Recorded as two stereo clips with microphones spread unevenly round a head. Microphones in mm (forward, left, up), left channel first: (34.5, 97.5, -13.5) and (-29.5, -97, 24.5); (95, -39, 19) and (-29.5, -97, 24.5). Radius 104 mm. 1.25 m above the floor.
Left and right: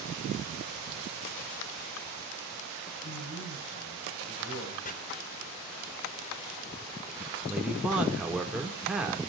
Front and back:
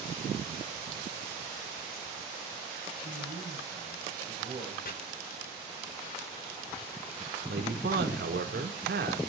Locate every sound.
3.0 s a man speaking: 115° left, 7.5 m; by 4.8 s 120° left, 7 m
4.8 s chopping: 20° left, 4 m
7.5 s a man speaking: 165° left, 3.5 m